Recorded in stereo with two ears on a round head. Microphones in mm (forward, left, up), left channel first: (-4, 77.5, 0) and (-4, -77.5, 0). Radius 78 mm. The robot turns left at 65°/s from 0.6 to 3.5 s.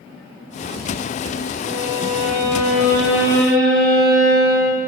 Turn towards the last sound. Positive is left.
turn(degrees=-80)